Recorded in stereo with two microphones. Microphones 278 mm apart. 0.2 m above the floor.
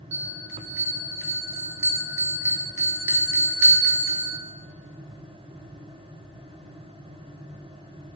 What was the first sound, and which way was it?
A bell, 50° right (ahead or behind).